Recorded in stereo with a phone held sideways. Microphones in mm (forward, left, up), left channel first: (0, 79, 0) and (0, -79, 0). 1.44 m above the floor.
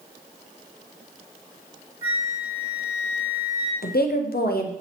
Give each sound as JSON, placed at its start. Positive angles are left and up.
{"t": 2.0, "sound": "a flute", "side_deg": 70, "distance_m": 2.5}
{"t": 3.8, "sound": "a woman speaking", "side_deg": 80, "distance_m": 0.6}